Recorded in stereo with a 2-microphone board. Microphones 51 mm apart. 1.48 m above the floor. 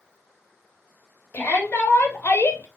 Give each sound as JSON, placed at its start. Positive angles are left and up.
{"t": 1.3, "sound": "a shout", "side_deg": 35, "distance_m": 2.0}